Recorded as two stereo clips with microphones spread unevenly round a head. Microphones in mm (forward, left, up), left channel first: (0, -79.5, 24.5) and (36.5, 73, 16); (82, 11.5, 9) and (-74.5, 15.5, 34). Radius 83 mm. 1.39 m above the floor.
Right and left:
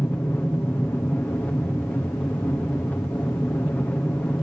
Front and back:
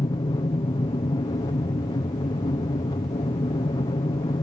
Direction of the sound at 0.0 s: 25° right.